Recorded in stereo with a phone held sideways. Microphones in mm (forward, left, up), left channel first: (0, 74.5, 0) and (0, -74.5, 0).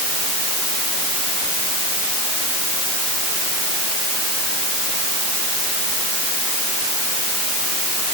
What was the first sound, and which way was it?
Only background noise.